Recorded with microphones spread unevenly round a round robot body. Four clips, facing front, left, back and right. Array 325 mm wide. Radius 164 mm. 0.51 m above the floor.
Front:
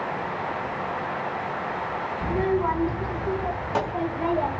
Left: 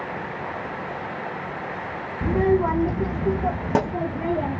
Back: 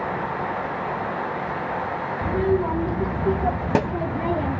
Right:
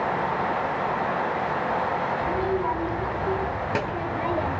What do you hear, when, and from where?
2.2 s a child speaking: 105° left, 1.7 m; by 4.6 s 165° left, 3 m